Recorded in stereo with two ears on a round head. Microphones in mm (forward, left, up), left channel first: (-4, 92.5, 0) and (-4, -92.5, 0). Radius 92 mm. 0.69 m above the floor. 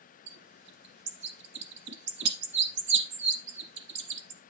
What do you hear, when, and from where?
0.3 s a bird: 55° right (ahead or behind), 1.2 m